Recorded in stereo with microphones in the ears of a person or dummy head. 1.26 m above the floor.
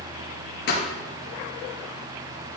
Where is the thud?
65° left (ahead or behind), 4.5 m.